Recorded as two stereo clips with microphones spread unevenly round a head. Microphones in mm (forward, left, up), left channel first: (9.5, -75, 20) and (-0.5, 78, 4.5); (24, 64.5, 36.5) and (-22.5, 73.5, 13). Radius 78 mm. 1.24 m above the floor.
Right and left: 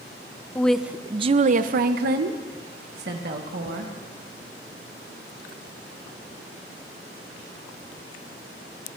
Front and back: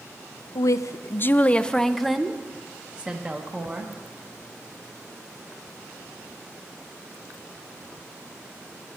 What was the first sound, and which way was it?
A woman speaking, 5° right.